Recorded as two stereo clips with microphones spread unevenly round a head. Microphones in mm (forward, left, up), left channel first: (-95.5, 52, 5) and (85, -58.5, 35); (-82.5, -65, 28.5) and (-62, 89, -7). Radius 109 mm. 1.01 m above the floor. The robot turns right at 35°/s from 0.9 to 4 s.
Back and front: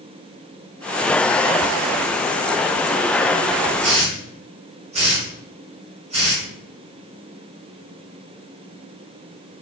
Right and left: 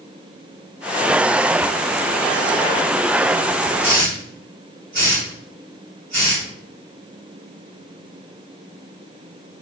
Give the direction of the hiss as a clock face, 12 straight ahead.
11 o'clock.